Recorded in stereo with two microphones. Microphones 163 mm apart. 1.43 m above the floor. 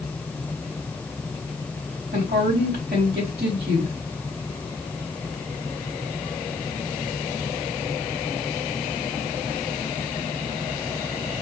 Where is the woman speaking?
80° right, 3 m.